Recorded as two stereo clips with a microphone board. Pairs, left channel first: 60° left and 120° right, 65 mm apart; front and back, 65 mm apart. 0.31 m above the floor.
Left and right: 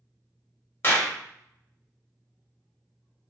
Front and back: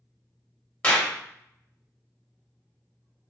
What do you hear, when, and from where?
0.8 s a clap: 55° left, 0.8 m